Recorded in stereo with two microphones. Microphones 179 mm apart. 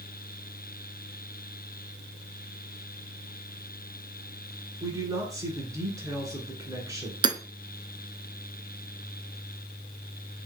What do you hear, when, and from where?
4.8 s a man speaking: 20° right (ahead or behind), 1.7 m
7.2 s hammering: 25° right (ahead or behind), 0.6 m